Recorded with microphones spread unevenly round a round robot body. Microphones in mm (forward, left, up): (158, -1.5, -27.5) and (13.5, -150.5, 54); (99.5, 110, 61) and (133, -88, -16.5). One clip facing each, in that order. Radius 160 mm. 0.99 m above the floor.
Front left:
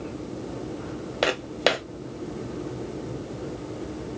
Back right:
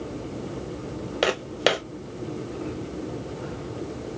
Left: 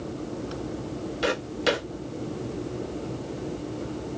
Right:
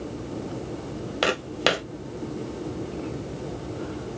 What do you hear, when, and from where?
1.2 s footsteps: 75° right, 1.5 m